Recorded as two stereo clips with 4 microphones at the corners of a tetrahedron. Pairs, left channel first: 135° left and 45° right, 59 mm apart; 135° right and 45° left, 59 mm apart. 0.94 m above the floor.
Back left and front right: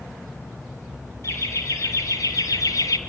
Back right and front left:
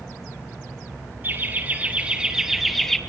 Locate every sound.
1.2 s laughter: 100° left, 1.7 m; by 3.0 s 145° left, 1.2 m